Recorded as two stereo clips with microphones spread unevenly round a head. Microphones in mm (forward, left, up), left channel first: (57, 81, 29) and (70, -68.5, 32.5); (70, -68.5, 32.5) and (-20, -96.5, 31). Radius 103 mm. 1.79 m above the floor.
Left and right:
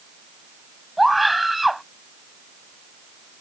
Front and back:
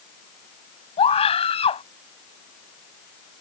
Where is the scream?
5° left.